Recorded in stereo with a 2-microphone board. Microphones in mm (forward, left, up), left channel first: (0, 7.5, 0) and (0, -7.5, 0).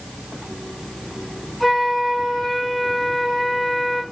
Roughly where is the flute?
Left.